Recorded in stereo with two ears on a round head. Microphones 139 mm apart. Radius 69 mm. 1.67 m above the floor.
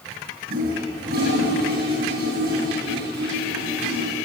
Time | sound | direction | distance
0.5 | a toilet flushing | 65° right (ahead or behind) | 9 m